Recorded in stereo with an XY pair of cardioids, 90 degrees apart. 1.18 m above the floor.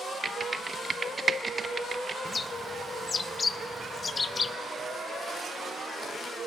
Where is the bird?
35° left, 0.5 m.